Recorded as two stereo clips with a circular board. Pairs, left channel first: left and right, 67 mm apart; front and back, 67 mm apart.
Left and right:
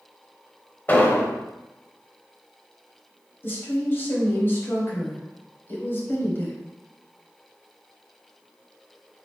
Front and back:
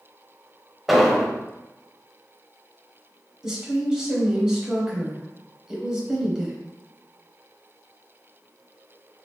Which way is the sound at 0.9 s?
95° left.